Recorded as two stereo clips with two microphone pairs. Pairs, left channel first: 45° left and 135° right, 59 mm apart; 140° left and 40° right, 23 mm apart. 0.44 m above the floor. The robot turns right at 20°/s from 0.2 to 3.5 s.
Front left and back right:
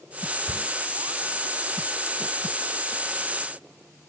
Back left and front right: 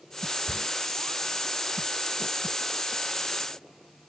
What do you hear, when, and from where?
0.5 s a cupboard door: straight behind, 0.7 m; by 0.7 s 175° right, 0.7 m